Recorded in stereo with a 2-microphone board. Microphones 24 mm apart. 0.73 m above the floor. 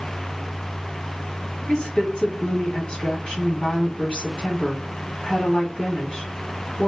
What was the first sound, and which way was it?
A woman speaking, 35° left (ahead or behind).